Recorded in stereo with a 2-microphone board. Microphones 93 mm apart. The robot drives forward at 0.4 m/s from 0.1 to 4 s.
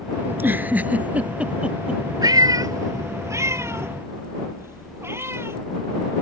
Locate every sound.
0.3 s a giggle: 25° right (ahead or behind); by 2.0 s 10° right (ahead or behind)
2.2 s a cat meowing: 45° right (ahead or behind); by 5.6 s 25° right (ahead or behind)